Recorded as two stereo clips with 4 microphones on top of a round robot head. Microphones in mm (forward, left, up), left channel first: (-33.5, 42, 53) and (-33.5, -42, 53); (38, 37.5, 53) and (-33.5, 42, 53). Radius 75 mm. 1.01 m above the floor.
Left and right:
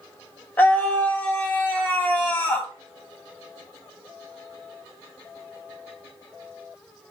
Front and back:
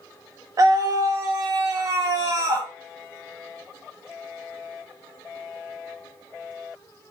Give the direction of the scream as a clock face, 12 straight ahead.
7 o'clock.